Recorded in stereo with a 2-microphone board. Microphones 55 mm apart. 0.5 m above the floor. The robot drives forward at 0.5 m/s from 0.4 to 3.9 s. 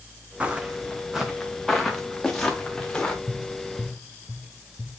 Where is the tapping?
5° left (ahead or behind), 8 m.